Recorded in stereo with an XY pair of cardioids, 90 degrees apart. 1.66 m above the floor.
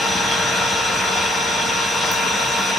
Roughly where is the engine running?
Left.